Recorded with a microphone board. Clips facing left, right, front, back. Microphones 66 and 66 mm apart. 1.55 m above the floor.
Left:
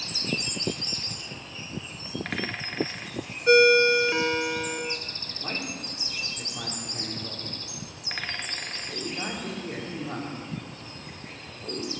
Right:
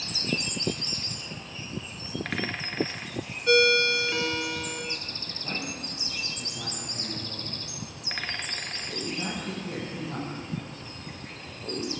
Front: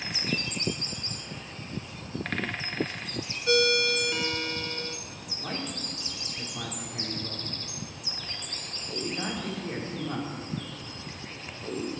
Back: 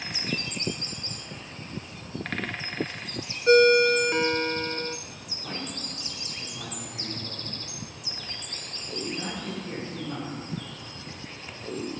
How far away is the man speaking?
About 5 m.